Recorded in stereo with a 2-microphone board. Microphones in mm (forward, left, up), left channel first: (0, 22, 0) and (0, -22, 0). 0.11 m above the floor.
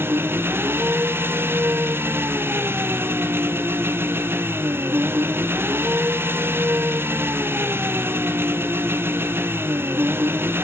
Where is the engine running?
60° right (ahead or behind), 1.7 m.